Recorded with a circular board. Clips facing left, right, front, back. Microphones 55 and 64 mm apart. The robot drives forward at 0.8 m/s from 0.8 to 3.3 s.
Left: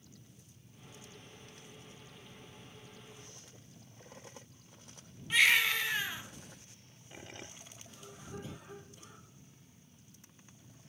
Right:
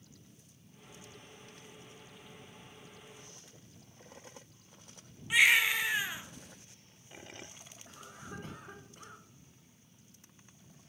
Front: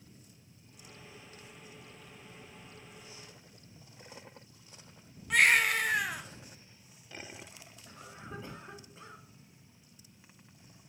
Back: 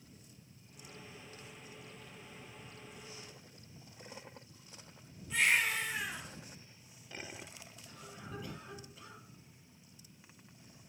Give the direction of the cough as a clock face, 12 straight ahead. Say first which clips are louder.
Right 2 dB, front 2 dB; 2 o'clock.